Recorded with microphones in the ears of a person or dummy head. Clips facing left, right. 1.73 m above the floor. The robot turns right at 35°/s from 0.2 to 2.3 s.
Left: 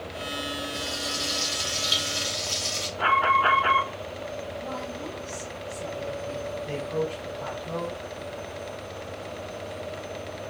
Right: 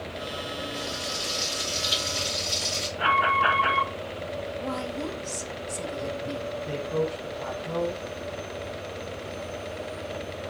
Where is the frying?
120° left, 3.5 m; by 2.9 s 175° left, 3.5 m.